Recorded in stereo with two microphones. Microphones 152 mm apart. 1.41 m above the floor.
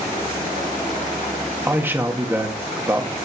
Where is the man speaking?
15° right (ahead or behind), 1.6 m.